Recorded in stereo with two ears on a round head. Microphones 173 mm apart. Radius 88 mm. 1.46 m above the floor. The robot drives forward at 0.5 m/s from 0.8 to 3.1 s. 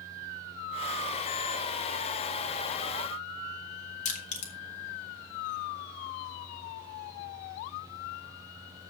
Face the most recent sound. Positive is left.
turn(degrees=40)  # may be behind; listen again after turning